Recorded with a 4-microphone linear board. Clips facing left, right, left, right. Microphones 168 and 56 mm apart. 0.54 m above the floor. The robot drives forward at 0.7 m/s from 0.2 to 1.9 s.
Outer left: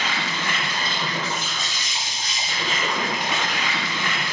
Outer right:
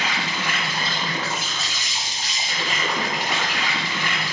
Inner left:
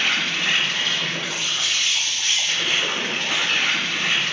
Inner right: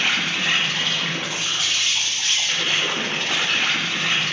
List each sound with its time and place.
0.0 s an insect: 10° right (ahead or behind), 1.1 m; by 4.3 s 5° right (ahead or behind), 2 m